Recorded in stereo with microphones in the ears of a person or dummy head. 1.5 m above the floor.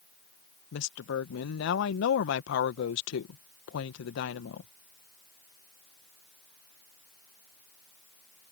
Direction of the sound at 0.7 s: 75° left (ahead or behind).